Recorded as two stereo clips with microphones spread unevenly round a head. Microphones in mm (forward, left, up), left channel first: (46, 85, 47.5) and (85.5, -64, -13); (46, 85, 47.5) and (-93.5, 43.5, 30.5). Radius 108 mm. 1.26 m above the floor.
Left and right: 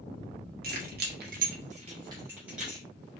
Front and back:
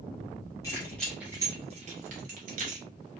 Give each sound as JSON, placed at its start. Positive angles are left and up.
{"t": 0.6, "sound": "keys jangling", "azimuth_deg": -45, "distance_m": 0.7}